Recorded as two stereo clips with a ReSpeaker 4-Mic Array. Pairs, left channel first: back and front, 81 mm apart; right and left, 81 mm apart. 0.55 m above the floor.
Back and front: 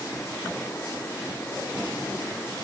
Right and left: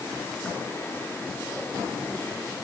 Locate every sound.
Only background noise.